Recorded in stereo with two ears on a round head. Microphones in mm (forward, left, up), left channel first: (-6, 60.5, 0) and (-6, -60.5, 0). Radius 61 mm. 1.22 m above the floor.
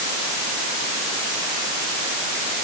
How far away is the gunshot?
I don't hear a gunshot.